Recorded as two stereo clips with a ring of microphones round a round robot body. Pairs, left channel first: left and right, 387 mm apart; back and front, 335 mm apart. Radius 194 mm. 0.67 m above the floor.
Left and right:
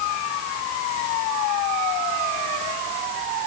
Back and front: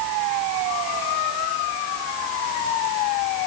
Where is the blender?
I don't hear a blender.